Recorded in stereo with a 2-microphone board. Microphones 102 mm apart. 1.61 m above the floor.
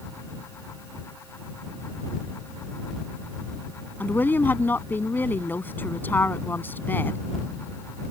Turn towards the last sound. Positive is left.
turn(degrees=20)  # may be behind; listen again after turning